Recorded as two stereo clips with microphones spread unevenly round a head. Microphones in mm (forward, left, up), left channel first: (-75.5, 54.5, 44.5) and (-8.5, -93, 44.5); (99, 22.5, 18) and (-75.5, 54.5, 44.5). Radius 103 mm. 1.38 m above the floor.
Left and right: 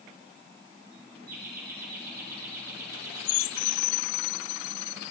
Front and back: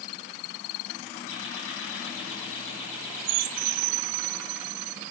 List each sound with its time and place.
1.3 s laughter: 25° right, 8 m